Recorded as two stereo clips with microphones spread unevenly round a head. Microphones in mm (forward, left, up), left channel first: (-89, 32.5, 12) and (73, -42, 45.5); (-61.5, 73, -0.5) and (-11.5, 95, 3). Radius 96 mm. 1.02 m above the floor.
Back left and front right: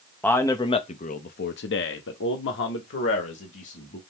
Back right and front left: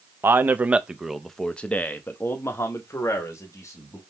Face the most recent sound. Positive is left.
turn(degrees=175)